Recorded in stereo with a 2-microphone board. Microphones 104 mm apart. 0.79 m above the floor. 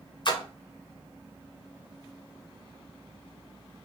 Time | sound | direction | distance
0.2 | a splash | 45° left (ahead or behind) | 0.6 m